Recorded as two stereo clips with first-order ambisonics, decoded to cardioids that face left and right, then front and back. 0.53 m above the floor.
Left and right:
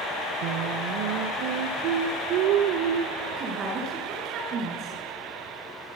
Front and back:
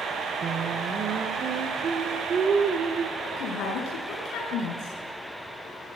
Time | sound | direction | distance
0.4 | singing | 115° right | 1.3 m
3.2 | a woman speaking | 40° right | 6.5 m